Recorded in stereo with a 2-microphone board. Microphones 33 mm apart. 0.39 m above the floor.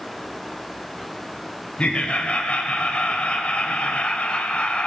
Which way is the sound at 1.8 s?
40° left (ahead or behind).